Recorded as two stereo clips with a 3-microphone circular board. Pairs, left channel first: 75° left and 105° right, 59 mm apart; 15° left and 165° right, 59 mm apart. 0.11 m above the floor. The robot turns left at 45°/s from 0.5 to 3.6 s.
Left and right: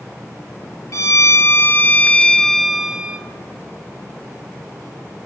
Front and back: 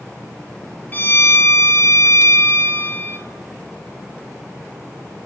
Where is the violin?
70° left, 0.8 m; by 3.2 s 35° right, 0.8 m.